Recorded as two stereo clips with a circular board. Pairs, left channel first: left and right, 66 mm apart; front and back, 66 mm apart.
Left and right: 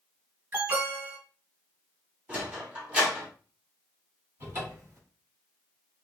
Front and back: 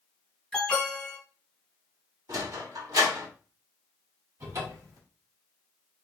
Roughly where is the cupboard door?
Behind right.